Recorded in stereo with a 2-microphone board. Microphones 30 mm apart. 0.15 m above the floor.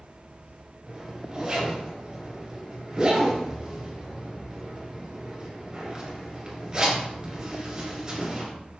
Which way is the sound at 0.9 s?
30° right (ahead or behind).